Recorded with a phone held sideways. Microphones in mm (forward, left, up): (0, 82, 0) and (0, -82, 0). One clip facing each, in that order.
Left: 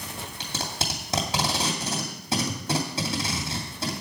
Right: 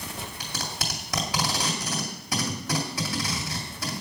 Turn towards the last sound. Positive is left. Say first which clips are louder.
# left 4 dB
turn(degrees=25)  # may be behind; listen again after turning